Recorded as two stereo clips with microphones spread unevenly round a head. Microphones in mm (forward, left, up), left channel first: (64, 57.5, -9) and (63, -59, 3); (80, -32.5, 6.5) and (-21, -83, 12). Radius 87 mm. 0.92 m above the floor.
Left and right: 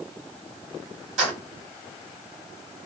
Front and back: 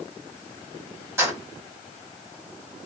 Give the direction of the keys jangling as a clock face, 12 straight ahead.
3 o'clock.